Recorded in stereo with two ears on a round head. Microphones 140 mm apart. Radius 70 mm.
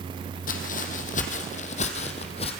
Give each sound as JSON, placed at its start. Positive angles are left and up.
{"t": 0.5, "sound": "footsteps", "side_deg": 55, "distance_m": 2.5}